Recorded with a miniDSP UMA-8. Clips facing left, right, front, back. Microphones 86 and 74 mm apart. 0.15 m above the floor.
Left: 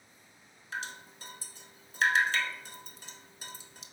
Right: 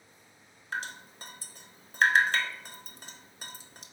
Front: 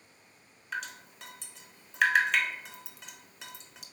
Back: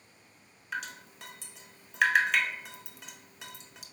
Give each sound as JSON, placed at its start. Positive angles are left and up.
{"t": 0.7, "sound": "dripping", "azimuth_deg": -90, "distance_m": 0.6}